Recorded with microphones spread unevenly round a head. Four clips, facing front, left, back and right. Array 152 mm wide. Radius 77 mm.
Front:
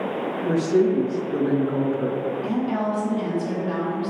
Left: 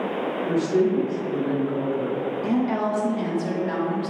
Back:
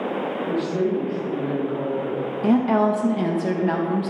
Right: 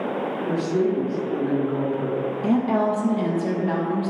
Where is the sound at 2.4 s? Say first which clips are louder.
Right 3 dB, back 10 dB; 165° right, 1.3 m.